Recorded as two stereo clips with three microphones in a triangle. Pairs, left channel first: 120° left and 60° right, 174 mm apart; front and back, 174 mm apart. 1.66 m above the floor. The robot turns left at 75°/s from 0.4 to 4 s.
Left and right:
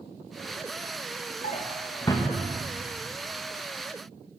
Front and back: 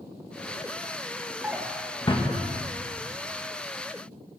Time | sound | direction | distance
1.4 | a drawer | 105° left | 1.2 m